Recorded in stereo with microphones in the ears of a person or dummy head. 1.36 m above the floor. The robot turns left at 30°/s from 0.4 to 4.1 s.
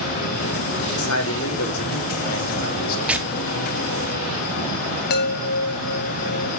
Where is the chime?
50° left (ahead or behind), 0.8 m.